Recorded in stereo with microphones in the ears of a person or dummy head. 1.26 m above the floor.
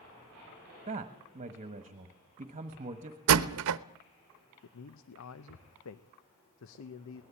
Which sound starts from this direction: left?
A man speaking, at 4.6 s.